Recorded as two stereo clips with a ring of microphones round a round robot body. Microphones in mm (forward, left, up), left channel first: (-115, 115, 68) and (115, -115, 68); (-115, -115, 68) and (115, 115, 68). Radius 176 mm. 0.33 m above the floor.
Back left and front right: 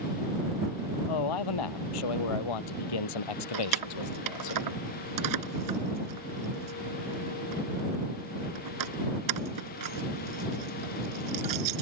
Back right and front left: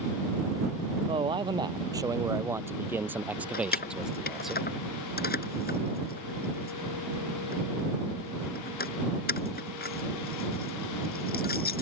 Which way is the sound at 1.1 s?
120° left.